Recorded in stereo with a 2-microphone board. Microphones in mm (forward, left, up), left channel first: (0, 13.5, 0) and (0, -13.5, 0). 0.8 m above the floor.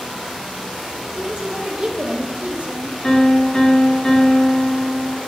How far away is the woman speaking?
About 0.8 m.